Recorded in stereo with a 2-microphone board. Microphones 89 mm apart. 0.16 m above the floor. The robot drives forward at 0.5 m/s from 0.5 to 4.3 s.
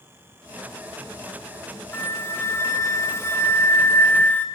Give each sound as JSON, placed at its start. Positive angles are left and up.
{"t": 1.9, "sound": "a flute", "side_deg": 30, "distance_m": 0.9}